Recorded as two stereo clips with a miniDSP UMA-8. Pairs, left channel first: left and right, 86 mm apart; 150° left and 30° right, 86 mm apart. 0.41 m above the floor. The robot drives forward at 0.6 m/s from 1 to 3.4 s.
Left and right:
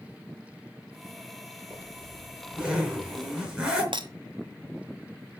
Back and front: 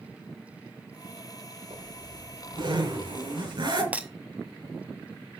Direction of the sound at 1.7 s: 10° right.